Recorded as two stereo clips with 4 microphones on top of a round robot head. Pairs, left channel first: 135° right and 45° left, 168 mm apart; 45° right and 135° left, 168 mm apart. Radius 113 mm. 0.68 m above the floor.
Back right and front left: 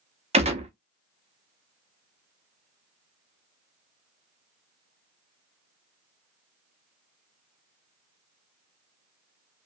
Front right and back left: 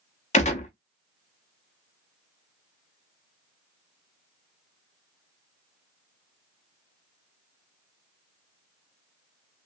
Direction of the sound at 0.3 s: Straight ahead.